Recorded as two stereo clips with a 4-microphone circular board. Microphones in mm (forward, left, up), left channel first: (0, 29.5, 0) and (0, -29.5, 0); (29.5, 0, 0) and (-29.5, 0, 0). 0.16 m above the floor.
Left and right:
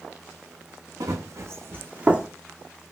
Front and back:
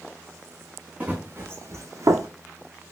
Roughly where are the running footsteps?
Right.